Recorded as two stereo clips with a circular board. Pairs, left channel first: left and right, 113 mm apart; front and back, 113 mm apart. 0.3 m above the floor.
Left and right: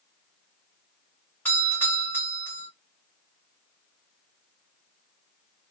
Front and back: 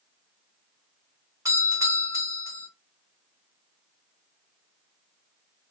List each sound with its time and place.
1.4 s a doorbell: 145° left, 1.5 m